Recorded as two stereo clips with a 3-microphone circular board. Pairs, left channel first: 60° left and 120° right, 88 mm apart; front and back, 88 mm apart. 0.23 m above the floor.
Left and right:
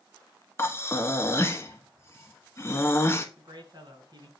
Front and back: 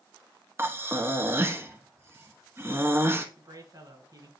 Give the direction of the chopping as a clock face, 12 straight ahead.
I don't hear chopping.